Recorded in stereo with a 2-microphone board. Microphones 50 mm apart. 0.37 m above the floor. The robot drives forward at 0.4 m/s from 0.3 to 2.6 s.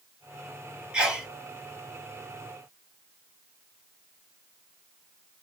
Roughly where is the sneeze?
Centre.